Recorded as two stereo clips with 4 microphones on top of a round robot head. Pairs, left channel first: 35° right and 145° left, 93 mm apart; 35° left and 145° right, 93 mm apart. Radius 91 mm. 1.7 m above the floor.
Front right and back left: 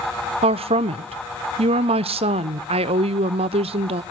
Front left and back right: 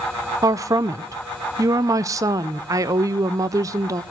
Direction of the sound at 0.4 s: 160° left.